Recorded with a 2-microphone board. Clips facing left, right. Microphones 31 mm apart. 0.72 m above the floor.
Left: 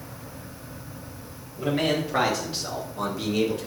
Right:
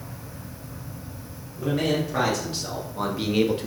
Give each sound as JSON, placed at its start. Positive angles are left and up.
{"t": 1.6, "sound": "a man speaking", "side_deg": 35, "distance_m": 2.0}